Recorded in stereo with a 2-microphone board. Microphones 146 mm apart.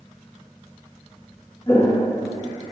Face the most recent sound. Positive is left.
turn(degrees=25)  # may be behind; listen again after turning